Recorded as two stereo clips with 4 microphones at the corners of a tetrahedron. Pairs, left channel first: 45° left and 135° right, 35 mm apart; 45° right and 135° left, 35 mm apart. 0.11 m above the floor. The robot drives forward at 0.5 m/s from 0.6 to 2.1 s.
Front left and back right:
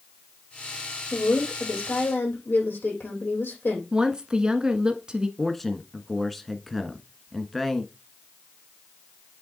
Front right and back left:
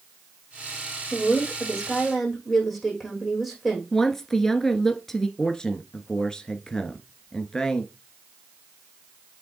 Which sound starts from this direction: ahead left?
A woman speaking, at 1.1 s.